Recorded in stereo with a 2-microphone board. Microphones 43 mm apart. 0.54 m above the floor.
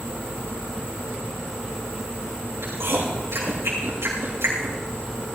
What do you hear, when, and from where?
2.6 s chewing: 85° right, 6.5 m